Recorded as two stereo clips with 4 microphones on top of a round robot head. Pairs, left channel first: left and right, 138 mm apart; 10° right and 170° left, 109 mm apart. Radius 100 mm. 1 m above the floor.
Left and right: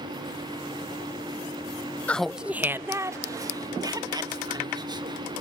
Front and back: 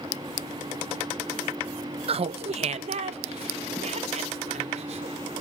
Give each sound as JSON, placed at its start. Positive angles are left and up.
{"t": 2.1, "sound": "laughter", "azimuth_deg": 170, "distance_m": 0.7}